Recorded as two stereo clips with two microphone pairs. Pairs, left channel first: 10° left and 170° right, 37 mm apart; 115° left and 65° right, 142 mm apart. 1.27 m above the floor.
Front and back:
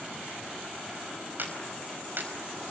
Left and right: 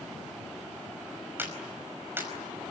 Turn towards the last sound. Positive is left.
turn(degrees=-140)